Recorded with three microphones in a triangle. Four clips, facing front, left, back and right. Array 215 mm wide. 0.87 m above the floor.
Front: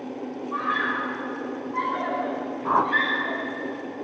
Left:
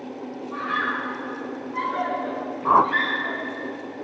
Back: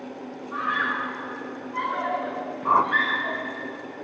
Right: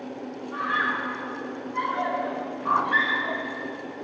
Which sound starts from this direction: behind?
A scream, at 0.5 s.